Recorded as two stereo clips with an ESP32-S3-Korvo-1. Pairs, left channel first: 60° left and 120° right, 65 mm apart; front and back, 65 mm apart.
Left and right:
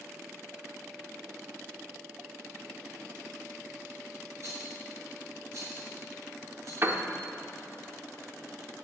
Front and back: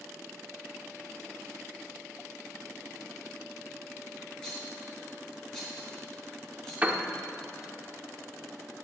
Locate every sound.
4.4 s a rattle: 80° right, 4 m
6.8 s a piano: 130° right, 0.9 m